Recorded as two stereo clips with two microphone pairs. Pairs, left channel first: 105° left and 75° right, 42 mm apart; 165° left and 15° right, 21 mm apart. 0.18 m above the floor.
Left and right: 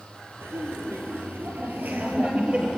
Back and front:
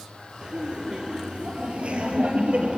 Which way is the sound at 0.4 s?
60° right.